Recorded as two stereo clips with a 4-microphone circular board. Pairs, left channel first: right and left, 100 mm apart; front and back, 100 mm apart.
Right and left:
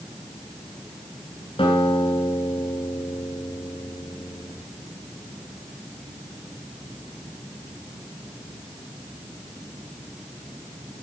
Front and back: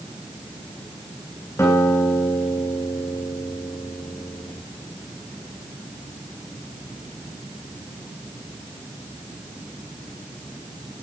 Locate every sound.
1.6 s a guitar: 60° right, 8.5 m